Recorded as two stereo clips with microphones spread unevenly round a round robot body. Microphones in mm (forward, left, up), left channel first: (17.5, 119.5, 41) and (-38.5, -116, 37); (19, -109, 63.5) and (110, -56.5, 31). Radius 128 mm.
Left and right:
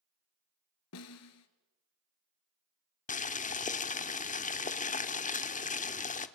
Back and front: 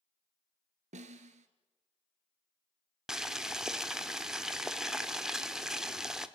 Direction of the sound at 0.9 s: 50° left.